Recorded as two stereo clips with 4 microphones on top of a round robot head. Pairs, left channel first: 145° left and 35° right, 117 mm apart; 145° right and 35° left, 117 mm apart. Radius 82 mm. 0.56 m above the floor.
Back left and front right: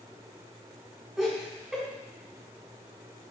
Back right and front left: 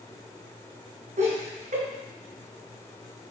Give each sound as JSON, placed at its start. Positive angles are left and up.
{"t": 1.2, "sound": "laughter", "azimuth_deg": 50, "distance_m": 2.5}